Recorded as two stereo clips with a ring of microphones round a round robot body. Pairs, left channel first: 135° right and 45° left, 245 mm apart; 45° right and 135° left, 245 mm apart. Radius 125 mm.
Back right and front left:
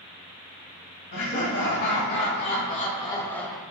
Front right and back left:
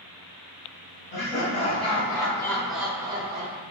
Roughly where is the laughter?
Right.